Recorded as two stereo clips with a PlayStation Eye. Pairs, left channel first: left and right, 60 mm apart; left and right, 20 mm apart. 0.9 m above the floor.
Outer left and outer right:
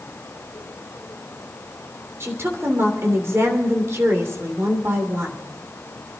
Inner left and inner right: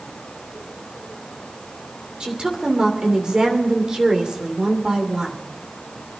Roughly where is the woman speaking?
Right.